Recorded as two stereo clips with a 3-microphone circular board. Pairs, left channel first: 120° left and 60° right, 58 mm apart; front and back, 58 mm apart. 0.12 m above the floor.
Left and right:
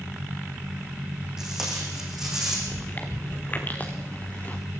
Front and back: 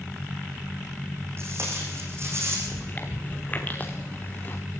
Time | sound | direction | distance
1.4 | tape being pulled | 140° right | 6.5 m
2.7 | chewing | 60° left | 2.5 m